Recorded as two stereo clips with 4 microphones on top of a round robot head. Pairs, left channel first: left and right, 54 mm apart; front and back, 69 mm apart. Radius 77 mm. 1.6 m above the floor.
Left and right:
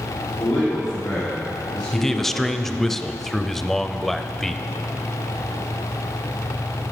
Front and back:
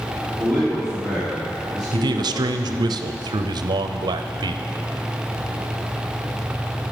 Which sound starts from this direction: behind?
A man speaking, at 1.9 s.